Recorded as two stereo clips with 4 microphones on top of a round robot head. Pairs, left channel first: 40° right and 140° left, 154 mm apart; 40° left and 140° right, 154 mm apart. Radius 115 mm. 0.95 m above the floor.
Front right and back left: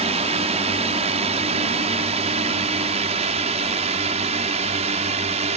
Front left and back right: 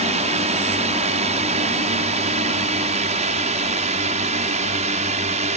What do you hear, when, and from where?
0.0 s a drone: straight behind